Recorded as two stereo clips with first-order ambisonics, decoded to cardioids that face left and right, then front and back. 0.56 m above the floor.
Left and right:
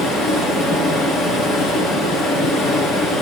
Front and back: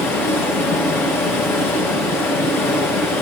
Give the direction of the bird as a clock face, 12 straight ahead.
No bird in this recording.